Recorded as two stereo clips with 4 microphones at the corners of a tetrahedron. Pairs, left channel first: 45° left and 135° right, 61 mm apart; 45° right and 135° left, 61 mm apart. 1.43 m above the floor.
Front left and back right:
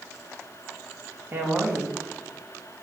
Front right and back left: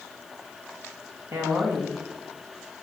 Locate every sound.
1.3 s a woman speaking: 175° left, 1.1 m